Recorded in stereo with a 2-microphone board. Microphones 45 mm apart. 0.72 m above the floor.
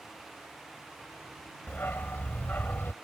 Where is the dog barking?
55° left (ahead or behind).